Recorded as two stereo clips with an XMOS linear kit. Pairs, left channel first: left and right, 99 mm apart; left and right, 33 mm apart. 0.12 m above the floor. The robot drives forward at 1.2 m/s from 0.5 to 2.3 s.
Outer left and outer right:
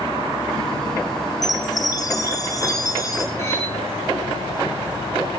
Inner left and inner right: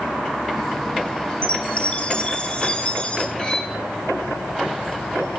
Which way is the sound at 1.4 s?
35° left (ahead or behind).